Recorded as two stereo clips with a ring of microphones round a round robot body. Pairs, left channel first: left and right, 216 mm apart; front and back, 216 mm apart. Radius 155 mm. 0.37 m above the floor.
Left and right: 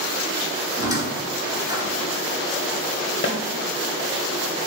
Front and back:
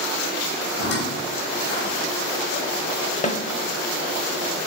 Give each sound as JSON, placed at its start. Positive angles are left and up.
{"t": 0.8, "sound": "a squeak", "azimuth_deg": -15, "distance_m": 3.5}
{"t": 3.2, "sound": "a snare drum", "azimuth_deg": 60, "distance_m": 0.9}